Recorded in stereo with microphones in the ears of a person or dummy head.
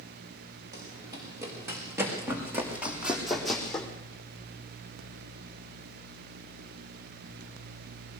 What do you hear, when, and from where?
0.7 s running footsteps: 25° right (ahead or behind), 8 m; by 3.9 s 5° left (ahead or behind), 4.5 m